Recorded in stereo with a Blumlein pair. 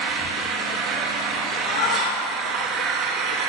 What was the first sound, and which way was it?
An engine running, 30° right.